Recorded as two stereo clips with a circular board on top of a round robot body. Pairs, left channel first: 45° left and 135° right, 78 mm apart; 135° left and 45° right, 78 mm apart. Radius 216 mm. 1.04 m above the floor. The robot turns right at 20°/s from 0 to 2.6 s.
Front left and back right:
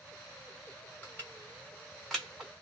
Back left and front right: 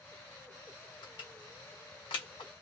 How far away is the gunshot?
No gunshot in this recording.